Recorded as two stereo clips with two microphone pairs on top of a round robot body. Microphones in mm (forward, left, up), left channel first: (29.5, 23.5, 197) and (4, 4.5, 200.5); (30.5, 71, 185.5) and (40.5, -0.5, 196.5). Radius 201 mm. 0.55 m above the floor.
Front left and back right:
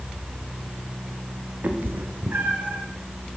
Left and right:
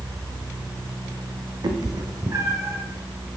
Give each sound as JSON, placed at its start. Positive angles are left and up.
{"t": 1.6, "sound": "a cat meowing", "azimuth_deg": -110, "distance_m": 0.8}